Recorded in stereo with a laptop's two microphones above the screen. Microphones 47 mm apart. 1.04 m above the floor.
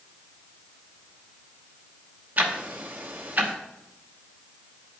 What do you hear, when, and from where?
2.4 s ticking: 35° right (ahead or behind), 0.9 m